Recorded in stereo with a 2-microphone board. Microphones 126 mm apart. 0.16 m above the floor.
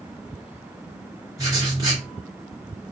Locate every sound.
1.4 s writing: 30° right (ahead or behind), 2.0 m